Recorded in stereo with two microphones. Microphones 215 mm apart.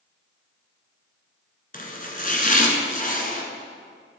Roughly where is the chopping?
Left.